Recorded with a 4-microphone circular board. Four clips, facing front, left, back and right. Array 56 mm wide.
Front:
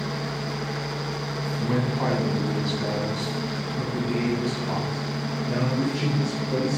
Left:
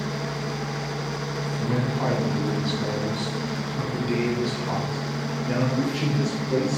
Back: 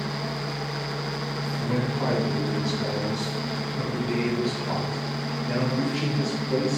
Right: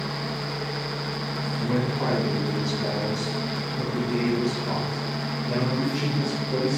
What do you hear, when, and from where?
1.6 s a man speaking: straight ahead, 1.6 m; by 6.8 s 110° left, 3 m